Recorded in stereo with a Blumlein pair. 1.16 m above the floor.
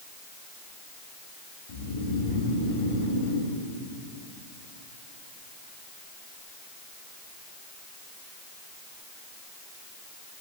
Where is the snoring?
50° left, 1.5 m.